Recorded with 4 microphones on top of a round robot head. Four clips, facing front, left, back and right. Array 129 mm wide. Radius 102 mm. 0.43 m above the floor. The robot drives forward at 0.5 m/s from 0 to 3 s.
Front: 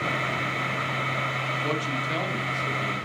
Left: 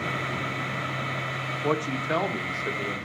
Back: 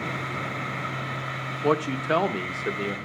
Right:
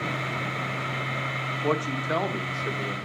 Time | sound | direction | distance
1.6 | a man speaking | straight behind | 1.3 m